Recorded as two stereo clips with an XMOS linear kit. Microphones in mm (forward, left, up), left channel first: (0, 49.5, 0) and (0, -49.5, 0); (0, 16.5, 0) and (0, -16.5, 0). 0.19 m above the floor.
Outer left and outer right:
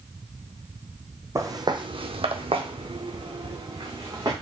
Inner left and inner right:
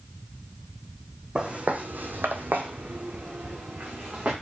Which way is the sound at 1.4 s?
30° right (ahead or behind).